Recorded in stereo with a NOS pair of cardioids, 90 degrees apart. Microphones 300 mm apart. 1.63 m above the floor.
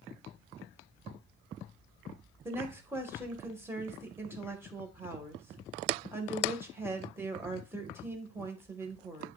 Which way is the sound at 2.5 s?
10° right.